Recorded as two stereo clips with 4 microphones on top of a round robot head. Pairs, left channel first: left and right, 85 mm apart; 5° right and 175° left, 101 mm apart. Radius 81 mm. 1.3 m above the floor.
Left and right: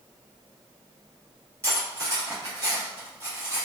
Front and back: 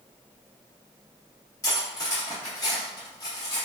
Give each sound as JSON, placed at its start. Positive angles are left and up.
{"t": 1.6, "sound": "cutlery clinking", "azimuth_deg": -45, "distance_m": 0.6}